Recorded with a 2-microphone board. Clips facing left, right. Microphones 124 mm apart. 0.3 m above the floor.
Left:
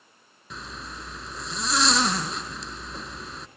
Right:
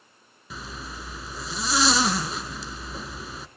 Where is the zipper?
5° right (ahead or behind), 1.8 m.